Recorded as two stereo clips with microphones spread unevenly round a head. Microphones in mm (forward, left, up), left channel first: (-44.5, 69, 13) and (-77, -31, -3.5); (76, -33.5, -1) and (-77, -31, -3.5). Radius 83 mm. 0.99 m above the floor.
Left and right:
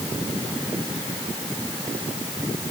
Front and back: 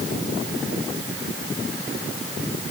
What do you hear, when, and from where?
Only background noise.